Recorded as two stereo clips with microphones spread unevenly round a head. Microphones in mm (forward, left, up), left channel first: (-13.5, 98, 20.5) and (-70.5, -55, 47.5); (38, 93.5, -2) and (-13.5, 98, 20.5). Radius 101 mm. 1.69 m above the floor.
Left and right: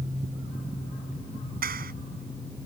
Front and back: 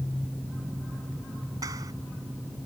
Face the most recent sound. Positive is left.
turn(degrees=-140)